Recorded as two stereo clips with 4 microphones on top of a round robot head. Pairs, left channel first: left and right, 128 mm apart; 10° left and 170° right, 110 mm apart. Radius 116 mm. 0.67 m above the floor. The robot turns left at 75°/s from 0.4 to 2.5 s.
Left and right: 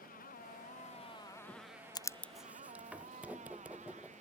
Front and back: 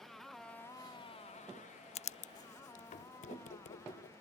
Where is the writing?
30° left; by 4.2 s 10° right.